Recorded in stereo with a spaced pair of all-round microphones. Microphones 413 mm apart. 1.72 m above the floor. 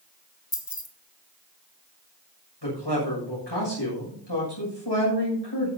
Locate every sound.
0.5 s keys jangling: 55° left (ahead or behind), 2.0 m
2.6 s a man speaking: 80° left, 6.5 m